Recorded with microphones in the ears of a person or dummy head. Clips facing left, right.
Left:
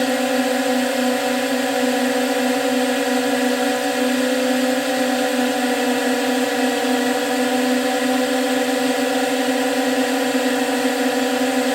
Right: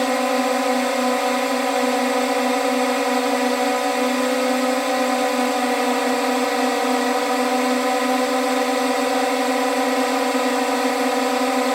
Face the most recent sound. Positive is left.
turn(degrees=10)  # may be behind; listen again after turning